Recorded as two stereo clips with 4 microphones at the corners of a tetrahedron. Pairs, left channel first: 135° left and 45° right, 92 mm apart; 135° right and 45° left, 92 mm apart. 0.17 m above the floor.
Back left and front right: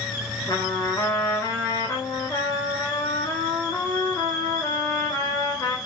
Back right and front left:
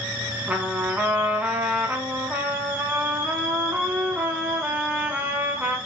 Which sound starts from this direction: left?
A trumpet, at 0.5 s.